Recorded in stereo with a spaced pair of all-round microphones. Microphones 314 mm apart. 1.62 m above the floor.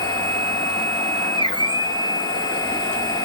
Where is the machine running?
15° left (ahead or behind), 1.3 m.